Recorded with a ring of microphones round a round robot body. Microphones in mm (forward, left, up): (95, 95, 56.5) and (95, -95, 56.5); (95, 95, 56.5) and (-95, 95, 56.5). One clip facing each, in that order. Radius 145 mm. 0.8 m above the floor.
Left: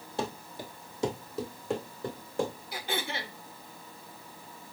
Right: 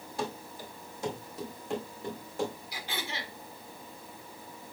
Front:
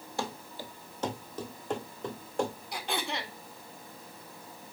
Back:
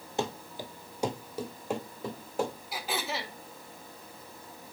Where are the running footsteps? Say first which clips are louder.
Left 1 dB, back 4 dB; 135° left, 0.8 m; by 2.5 s 95° left, 3 m.